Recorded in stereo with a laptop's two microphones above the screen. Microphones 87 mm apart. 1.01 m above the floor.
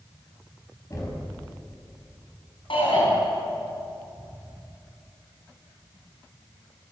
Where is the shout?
75° left (ahead or behind), 9 m.